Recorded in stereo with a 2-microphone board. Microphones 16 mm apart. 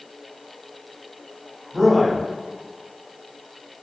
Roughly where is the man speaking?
Right.